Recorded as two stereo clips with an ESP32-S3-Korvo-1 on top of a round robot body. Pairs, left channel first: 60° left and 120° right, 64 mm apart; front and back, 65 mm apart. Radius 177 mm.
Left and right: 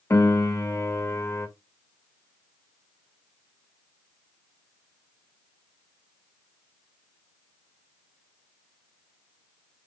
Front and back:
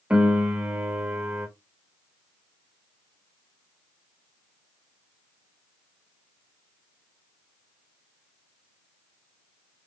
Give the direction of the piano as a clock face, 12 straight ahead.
8 o'clock.